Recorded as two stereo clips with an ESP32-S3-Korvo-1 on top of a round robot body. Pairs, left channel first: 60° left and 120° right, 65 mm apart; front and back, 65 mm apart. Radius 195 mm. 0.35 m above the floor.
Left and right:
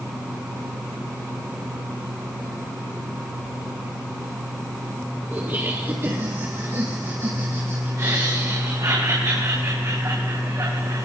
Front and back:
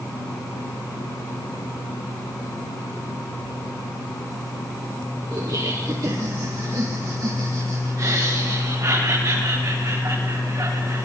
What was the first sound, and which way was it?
Laughter, 175° right.